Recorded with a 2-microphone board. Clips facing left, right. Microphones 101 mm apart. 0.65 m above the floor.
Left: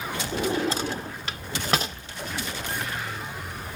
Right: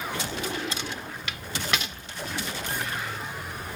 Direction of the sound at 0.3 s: 35° left (ahead or behind).